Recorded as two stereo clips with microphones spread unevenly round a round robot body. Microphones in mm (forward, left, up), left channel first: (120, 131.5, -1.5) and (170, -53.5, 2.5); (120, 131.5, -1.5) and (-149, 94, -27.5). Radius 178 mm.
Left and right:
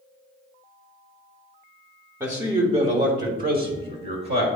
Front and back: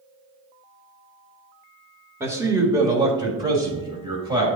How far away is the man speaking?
About 0.8 m.